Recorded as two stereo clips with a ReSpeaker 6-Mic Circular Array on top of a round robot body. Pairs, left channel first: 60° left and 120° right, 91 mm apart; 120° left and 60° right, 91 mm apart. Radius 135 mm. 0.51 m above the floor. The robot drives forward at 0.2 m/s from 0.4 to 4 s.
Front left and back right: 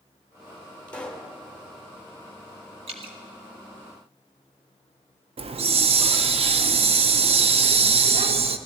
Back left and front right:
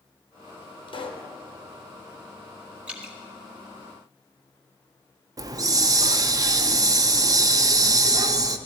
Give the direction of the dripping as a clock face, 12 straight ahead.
5 o'clock.